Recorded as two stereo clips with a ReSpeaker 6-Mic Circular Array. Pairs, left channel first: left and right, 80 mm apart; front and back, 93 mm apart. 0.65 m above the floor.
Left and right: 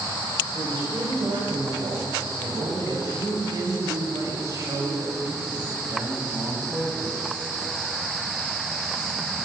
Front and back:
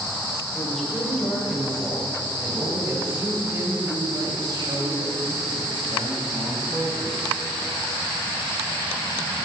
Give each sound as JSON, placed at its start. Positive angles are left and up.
{"t": 0.5, "sound": "a woman speaking", "azimuth_deg": -90, "distance_m": 3.0}